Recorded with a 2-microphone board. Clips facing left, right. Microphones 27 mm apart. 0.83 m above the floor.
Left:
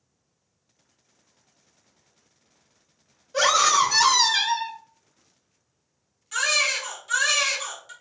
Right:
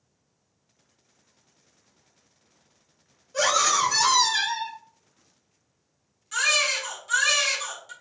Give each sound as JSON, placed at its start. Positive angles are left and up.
{"t": 3.3, "sound": "a scream", "side_deg": 25, "distance_m": 0.8}
{"t": 6.3, "sound": "a baby crying", "side_deg": 5, "distance_m": 1.2}